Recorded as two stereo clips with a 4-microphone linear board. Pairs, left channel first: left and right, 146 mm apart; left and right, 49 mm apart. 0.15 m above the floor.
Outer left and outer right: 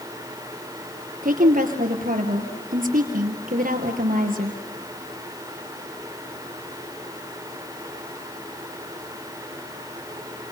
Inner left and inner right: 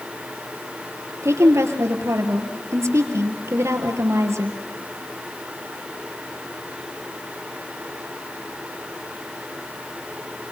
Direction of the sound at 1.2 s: 65° right (ahead or behind).